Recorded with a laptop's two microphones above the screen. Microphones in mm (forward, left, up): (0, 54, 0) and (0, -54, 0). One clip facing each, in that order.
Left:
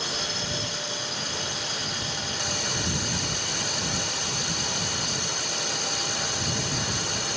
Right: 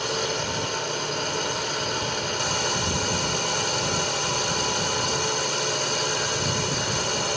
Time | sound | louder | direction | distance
0.0 | a drone | right 6 dB | 55° right (ahead or behind) | ?